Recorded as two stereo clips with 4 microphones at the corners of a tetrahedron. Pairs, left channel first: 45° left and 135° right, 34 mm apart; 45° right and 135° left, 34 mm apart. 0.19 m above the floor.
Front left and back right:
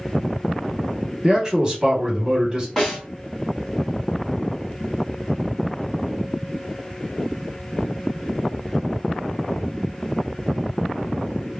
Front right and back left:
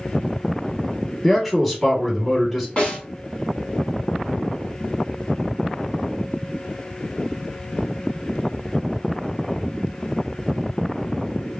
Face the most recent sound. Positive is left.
turn(degrees=-35)